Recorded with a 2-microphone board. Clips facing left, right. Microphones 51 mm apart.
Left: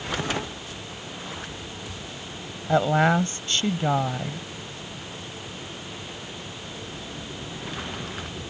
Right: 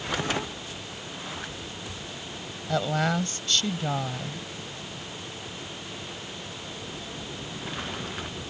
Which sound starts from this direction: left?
A woman speaking, at 2.7 s.